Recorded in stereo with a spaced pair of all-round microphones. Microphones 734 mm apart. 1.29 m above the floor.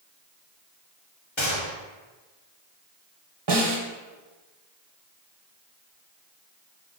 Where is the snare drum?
35° right (ahead or behind), 0.9 m.